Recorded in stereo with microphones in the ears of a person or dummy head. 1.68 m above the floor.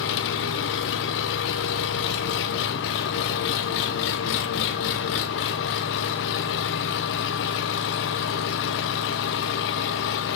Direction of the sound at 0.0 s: 70° left (ahead or behind).